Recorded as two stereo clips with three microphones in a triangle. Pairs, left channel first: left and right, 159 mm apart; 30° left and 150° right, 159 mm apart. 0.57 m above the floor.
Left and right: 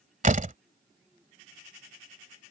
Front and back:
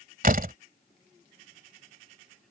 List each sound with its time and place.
0.2 s a door slam: 125° right